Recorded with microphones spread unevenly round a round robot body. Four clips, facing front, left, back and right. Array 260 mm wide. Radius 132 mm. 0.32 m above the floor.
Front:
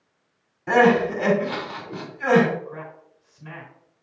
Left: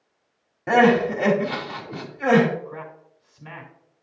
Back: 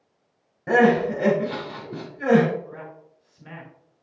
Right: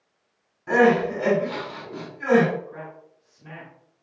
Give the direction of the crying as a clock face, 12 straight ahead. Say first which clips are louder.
Left 1 dB, front 1 dB; 8 o'clock.